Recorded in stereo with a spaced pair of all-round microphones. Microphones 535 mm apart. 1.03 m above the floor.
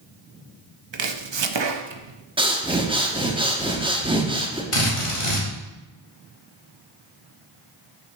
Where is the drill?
70° left (ahead or behind), 1.9 m.